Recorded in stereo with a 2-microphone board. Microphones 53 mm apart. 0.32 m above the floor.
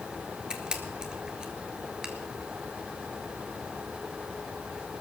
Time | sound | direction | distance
0.5 | a camera shutter | 15° right (ahead or behind) | 1.4 m